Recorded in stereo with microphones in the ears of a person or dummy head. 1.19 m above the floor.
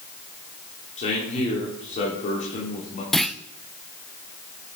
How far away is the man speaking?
About 4 m.